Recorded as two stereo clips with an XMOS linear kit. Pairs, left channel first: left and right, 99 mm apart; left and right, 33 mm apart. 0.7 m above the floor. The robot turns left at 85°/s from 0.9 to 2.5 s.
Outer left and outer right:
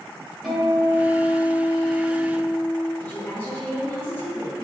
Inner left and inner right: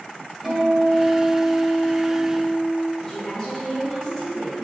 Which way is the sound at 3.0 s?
20° left (ahead or behind).